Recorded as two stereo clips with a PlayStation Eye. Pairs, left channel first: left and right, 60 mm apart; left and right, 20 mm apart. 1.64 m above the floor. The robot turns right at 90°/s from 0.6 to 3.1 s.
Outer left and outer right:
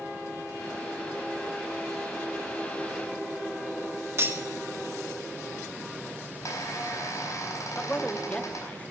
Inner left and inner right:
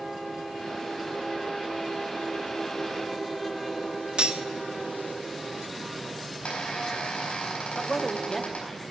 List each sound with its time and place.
4.2 s cutlery clinking: 45° right (ahead or behind), 1.4 m
6.3 s a squeak: 70° left (ahead or behind), 4.5 m
7.8 s a man speaking: 25° left (ahead or behind), 1.1 m